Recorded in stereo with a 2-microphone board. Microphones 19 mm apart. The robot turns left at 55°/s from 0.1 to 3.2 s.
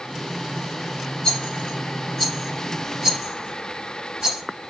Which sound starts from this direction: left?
A rattle, at 1.2 s.